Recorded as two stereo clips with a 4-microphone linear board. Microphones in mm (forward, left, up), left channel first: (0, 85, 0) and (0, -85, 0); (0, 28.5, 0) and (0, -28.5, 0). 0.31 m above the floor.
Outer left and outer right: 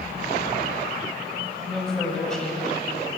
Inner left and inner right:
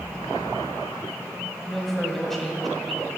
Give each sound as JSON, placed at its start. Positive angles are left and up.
{"t": 1.7, "sound": "a woman speaking", "side_deg": 5, "distance_m": 1.6}